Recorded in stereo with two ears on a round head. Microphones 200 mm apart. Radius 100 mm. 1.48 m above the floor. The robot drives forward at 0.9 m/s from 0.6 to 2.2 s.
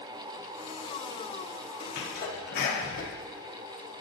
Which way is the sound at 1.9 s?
50° left (ahead or behind).